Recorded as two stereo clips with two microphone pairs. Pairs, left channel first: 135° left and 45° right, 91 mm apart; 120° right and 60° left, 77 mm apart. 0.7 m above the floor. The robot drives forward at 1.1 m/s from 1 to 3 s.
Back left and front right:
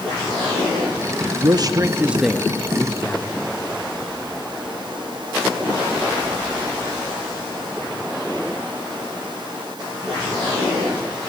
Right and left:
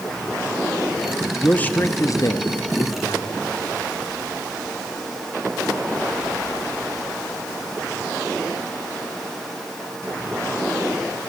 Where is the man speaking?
50° right, 0.9 m; by 3.3 s 155° right, 1.5 m.